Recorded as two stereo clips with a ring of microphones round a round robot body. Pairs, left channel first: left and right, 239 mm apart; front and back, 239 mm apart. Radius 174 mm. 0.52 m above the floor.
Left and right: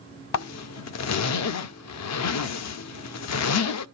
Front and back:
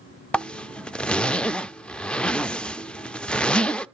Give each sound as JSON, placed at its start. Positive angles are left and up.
{"t": 0.3, "sound": "a zipper", "azimuth_deg": 85, "distance_m": 0.6}